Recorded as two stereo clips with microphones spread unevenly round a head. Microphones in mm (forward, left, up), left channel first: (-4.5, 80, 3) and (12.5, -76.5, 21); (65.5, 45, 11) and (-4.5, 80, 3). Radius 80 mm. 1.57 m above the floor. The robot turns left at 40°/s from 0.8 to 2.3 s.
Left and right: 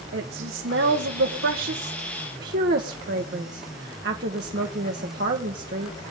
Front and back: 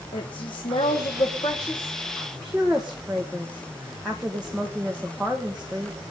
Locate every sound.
0.1 s a woman speaking: 55° right, 1.6 m; by 6.0 s 115° right, 1.6 m